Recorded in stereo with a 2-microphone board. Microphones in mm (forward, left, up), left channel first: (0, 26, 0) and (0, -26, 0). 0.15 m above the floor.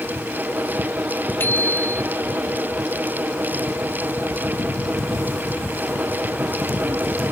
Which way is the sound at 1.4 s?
45° left (ahead or behind).